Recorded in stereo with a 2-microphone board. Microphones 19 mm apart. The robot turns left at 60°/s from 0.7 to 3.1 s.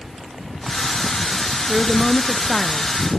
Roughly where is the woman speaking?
Behind.